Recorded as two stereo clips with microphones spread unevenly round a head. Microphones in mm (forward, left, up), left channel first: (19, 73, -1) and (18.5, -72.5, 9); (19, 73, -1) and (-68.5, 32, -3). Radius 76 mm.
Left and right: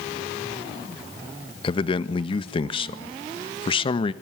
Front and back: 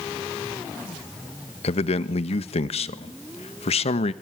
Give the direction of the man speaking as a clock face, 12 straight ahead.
11 o'clock.